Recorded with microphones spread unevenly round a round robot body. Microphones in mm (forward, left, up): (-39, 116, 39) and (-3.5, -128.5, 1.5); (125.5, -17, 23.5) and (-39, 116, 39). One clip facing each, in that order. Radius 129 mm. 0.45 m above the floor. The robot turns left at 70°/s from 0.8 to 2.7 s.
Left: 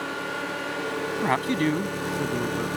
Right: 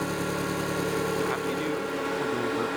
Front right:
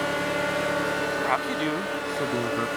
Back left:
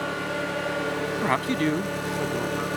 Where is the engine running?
125° right; by 2.8 s 100° left.